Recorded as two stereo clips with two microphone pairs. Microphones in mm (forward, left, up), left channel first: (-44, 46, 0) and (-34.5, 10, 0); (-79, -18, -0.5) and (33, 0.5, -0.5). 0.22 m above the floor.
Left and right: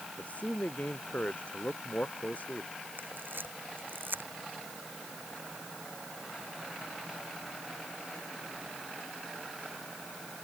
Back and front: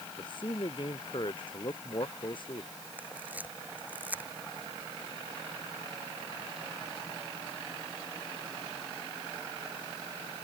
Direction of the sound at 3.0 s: 65° right.